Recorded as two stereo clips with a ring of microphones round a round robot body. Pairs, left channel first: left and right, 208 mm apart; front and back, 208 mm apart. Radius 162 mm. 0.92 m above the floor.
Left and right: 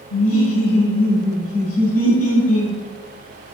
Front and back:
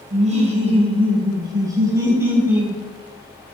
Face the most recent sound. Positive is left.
turn(degrees=95)